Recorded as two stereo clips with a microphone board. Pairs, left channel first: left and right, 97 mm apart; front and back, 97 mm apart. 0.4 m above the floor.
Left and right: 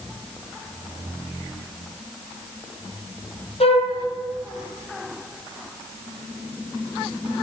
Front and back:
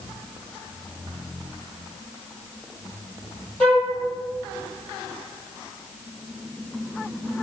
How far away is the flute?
About 2.0 m.